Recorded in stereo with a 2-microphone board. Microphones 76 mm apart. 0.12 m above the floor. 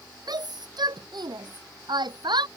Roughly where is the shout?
Right.